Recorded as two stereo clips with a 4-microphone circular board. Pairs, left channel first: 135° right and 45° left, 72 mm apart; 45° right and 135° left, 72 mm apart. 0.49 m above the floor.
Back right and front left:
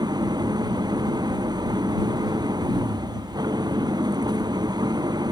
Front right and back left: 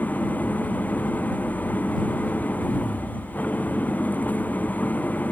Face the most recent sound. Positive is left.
turn(degrees=20)